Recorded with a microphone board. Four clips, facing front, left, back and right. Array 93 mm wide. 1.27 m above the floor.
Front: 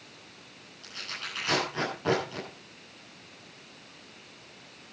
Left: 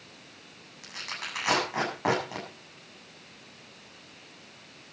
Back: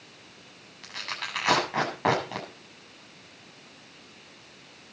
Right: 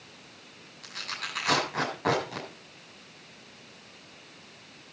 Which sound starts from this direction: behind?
Tearing paper, at 0.8 s.